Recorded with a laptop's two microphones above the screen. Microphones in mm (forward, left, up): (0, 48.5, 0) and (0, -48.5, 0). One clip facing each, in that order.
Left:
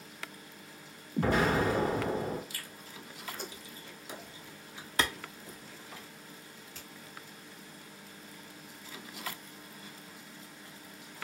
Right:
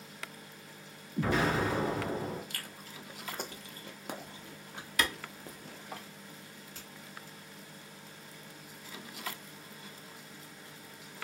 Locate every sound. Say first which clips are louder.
1.2 s an explosion: left 2 dB; 45° left (ahead or behind), 0.9 m
2.5 s chewing: right 1 dB; 60° right (ahead or behind), 0.5 m
5.0 s a clap: left 1 dB; 30° left (ahead or behind), 0.7 m
6.8 s a finger snap: even; 30° right (ahead or behind), 1.7 m